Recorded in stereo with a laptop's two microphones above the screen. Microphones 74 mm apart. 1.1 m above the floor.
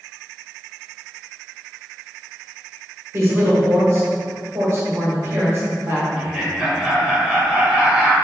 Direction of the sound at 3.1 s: 35° right (ahead or behind).